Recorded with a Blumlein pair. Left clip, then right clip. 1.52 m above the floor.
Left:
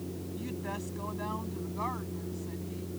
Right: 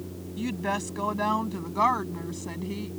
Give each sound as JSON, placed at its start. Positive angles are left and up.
{"t": 0.4, "sound": "a woman speaking", "azimuth_deg": -60}